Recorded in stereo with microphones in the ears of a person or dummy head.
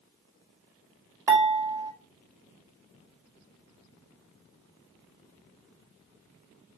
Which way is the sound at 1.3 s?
20° right (ahead or behind).